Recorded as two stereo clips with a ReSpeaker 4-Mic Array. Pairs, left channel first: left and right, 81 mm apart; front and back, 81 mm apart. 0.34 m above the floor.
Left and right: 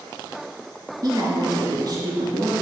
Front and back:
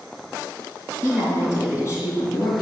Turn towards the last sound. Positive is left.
turn(degrees=-50)